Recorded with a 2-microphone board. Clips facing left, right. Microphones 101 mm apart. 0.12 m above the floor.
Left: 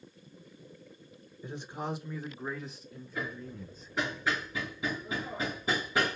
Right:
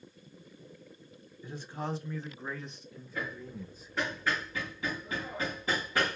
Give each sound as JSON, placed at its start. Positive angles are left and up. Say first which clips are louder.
{"t": 1.4, "sound": "a man speaking", "louder": "left 1 dB", "side_deg": 20, "distance_m": 1.1}
{"t": 3.1, "sound": "hammering", "louder": "even", "side_deg": 10, "distance_m": 3.5}